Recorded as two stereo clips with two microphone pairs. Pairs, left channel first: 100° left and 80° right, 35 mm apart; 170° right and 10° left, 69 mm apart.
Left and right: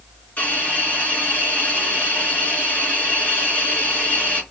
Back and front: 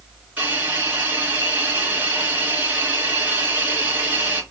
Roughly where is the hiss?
Left.